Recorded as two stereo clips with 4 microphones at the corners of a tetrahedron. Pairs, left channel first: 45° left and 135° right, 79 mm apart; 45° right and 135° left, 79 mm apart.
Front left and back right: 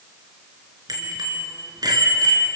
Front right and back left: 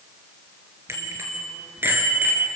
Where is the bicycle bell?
170° right, 4 m; by 2.5 s 160° right, 3.5 m.